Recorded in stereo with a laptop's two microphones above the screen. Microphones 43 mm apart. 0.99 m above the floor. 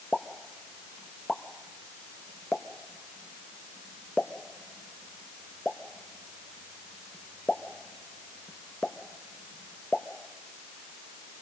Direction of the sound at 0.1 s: 25° left (ahead or behind).